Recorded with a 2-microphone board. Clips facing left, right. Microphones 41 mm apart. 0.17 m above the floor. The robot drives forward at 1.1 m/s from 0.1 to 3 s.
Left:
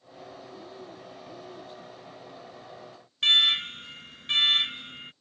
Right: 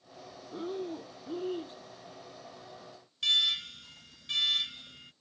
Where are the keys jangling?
I don't hear keys jangling.